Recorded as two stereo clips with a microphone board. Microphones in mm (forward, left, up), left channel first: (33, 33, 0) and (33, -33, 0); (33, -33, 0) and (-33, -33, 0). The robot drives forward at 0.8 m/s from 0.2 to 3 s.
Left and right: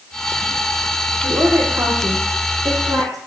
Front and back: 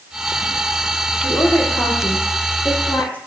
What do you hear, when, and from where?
1.2 s a woman speaking: 55° right, 7.5 m; by 3.2 s 65° right, 7 m